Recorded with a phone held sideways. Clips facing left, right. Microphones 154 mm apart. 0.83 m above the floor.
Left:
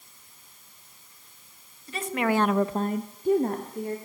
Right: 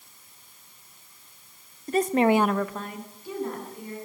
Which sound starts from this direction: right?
A woman speaking, at 1.9 s.